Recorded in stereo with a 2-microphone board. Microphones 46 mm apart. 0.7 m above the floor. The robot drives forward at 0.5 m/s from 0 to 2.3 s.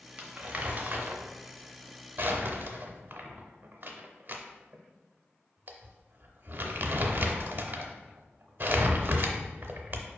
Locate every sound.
0.2 s crumpling: 30° right (ahead or behind), 0.9 m; by 10.1 s 45° right (ahead or behind), 0.6 m